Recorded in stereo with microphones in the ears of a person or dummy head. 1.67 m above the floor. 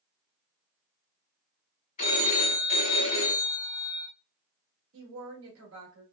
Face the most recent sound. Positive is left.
turn(degrees=-85)